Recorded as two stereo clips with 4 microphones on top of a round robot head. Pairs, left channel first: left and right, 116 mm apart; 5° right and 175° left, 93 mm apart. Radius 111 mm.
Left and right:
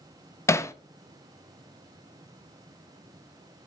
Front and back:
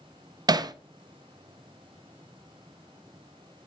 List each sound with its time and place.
0.5 s hammering: 150° left, 0.7 m